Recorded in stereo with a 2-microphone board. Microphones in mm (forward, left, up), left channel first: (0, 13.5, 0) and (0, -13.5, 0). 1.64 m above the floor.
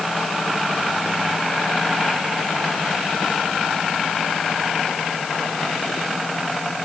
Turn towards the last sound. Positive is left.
No sound to turn to.